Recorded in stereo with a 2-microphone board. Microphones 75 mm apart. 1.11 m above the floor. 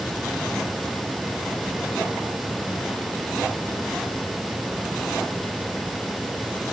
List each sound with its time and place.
Only background noise.